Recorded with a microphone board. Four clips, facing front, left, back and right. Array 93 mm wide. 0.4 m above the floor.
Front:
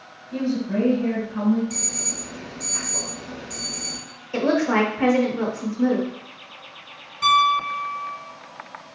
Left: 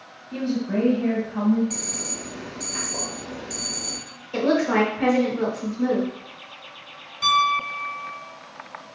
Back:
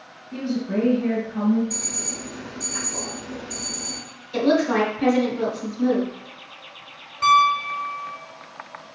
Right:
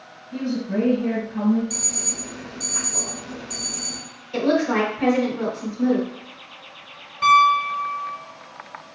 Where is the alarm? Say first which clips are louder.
Even, even; 90° left, 1.9 m.